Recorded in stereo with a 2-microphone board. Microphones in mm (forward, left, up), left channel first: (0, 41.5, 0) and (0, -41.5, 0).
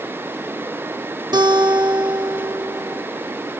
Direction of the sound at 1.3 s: 55° right (ahead or behind).